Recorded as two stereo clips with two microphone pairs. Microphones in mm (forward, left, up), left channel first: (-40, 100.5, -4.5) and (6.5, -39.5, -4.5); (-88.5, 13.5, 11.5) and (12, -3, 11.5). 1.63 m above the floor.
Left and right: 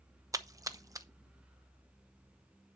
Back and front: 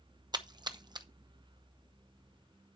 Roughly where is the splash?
Ahead.